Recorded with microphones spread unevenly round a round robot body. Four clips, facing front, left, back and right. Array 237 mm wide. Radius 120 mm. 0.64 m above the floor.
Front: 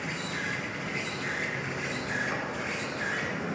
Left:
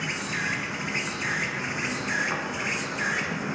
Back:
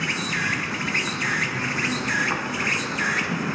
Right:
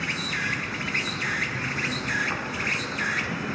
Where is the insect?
170° right, 1.2 m.